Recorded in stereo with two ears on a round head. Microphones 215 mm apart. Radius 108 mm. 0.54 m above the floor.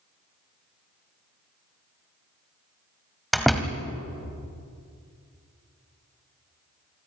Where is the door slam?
Centre (ahead or behind), 1.8 m.